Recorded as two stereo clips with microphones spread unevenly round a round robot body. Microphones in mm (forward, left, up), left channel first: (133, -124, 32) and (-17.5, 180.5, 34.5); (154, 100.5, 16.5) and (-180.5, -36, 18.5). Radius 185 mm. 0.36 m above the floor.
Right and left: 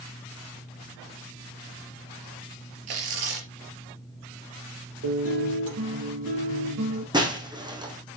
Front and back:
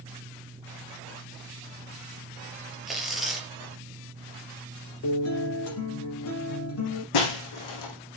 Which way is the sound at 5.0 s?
70° left.